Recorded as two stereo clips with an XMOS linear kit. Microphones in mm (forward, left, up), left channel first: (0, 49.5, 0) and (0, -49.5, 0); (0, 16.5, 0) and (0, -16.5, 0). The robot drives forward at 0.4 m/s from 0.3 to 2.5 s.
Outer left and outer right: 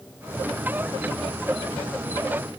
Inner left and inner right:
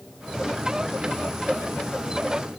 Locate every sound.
Only background noise.